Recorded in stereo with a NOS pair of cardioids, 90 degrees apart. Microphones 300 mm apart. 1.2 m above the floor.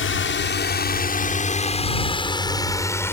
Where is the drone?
45° left; by 3.1 s 10° left.